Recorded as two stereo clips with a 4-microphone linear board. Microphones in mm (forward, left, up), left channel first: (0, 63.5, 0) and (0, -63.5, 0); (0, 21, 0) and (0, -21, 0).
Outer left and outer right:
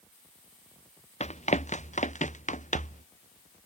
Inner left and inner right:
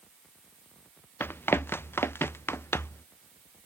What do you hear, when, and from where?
1.2 s running footsteps: 60° left (ahead or behind); by 3.0 s 75° left (ahead or behind)